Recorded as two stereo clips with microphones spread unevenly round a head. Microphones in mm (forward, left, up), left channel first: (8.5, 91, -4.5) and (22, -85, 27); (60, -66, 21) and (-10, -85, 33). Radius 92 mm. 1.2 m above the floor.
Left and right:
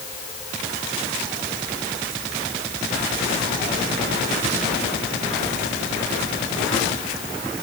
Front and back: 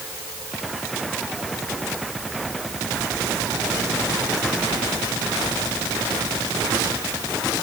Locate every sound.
Only background noise.